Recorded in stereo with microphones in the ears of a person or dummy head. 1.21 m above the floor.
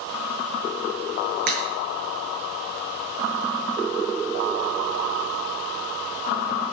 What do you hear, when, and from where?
1.5 s a crack: 50° right (ahead or behind), 7.5 m